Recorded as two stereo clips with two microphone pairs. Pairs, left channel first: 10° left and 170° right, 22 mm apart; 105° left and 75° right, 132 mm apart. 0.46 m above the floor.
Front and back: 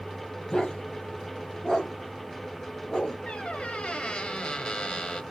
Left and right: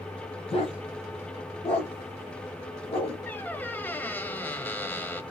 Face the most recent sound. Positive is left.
turn(degrees=30)